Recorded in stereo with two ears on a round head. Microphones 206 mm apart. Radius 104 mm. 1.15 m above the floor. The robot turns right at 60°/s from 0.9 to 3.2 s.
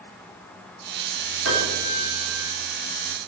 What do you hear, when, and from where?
1.4 s a piano: 120° right, 3 m; by 2.5 s 55° right, 3 m